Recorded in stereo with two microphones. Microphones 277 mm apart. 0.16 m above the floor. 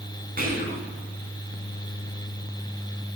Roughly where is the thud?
I don't hear a thud.